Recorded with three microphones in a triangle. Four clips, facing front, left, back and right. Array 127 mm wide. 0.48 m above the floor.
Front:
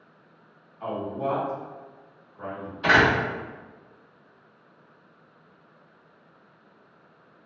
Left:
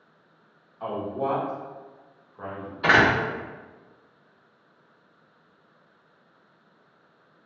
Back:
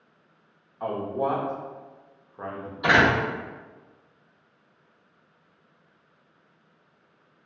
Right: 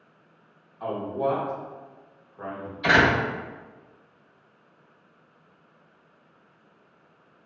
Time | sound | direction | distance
0.8 | a man speaking | straight behind | 0.9 m
2.8 | a door slam | 100° left | 1.1 m